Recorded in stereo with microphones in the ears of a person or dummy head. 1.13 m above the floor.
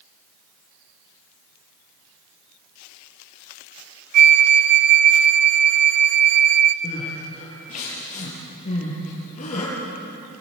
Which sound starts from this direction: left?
Crying, at 6.8 s.